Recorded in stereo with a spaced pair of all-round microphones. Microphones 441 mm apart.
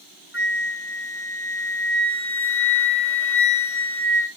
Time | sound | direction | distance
0.3 | a flute | 25° left (ahead or behind) | 1.4 m